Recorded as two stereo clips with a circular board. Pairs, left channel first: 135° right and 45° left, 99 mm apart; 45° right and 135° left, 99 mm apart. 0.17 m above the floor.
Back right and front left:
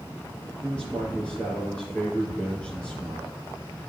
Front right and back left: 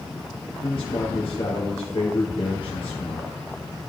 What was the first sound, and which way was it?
A man speaking, 60° right.